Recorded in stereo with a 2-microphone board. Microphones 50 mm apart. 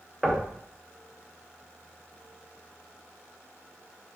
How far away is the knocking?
About 0.6 m.